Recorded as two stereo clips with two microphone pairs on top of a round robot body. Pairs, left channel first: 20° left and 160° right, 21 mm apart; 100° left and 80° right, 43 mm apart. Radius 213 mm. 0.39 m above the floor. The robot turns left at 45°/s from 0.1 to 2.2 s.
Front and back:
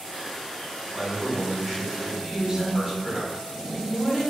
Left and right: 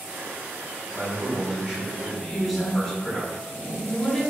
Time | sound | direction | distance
0.9 | a man speaking | 125° right | 1.6 m
2.3 | a woman speaking | straight behind | 1.0 m